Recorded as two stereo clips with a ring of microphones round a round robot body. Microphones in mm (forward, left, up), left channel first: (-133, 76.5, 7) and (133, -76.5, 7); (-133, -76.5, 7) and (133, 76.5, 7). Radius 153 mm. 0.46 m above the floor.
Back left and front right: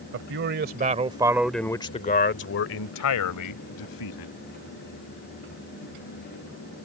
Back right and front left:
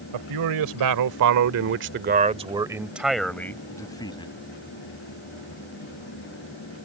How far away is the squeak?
No squeak in this recording.